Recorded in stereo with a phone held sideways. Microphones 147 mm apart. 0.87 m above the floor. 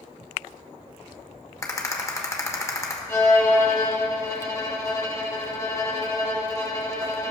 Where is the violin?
20° left (ahead or behind), 1.4 m.